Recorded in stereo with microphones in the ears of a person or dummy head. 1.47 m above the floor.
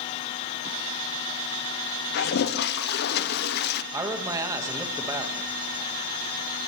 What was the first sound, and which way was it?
A toilet flushing, 50° left (ahead or behind).